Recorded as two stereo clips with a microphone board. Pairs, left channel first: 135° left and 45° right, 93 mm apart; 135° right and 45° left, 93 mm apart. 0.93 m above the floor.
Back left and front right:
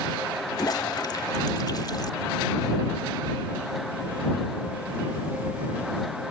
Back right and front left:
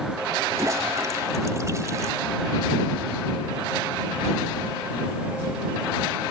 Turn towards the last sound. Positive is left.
turn(degrees=95)